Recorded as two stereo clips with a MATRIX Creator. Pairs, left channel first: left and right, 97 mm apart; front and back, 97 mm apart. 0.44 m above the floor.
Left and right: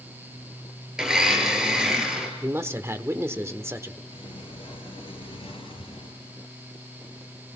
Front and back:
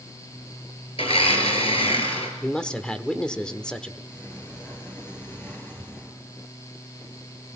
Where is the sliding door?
65° left, 5.5 m.